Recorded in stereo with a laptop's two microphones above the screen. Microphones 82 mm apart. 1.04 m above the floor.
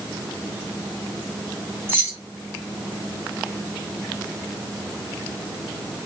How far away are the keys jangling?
About 0.7 m.